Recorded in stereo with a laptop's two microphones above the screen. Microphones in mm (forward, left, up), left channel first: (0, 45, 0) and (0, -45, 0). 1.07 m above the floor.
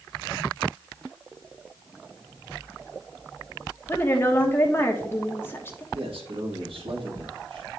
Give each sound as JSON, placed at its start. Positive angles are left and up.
{"t": 3.9, "sound": "a woman speaking", "side_deg": 25, "distance_m": 1.2}
{"t": 5.9, "sound": "a man speaking", "side_deg": -75, "distance_m": 1.4}